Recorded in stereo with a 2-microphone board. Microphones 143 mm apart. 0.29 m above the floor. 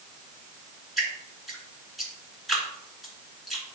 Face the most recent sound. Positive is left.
turn(degrees=0)  # may be behind; listen again after turning